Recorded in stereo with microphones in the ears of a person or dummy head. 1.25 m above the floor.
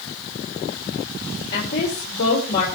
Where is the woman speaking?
55° left (ahead or behind), 4.5 m.